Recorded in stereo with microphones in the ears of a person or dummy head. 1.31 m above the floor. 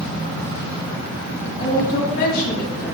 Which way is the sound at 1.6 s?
60° left (ahead or behind).